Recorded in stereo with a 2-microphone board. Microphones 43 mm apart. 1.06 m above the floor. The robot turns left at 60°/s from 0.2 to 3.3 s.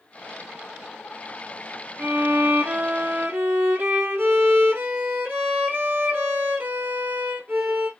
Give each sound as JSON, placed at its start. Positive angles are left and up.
{"t": 2.0, "sound": "a violin", "azimuth_deg": -50, "distance_m": 1.5}